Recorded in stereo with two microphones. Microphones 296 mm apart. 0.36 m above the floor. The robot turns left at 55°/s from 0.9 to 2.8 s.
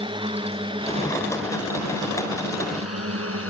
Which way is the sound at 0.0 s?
15° right (ahead or behind).